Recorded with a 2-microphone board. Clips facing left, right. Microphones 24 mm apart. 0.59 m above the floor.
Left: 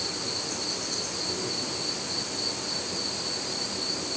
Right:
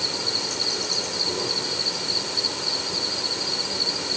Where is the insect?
60° right (ahead or behind), 1.6 m.